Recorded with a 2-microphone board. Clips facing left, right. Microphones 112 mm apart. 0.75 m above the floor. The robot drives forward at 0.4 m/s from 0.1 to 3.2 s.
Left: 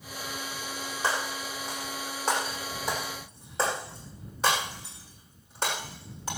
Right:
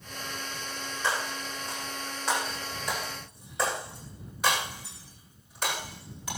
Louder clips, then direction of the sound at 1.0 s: Left 1 dB; 35° left (ahead or behind).